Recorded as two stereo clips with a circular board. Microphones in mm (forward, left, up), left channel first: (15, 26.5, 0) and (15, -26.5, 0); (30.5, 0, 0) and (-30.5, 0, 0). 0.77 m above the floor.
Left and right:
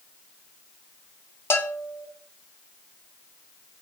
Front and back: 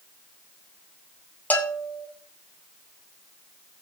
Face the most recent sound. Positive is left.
turn(degrees=60)